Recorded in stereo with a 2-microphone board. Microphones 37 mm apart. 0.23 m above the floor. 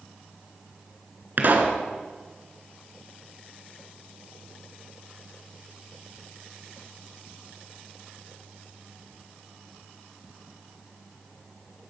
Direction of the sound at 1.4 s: 50° right (ahead or behind).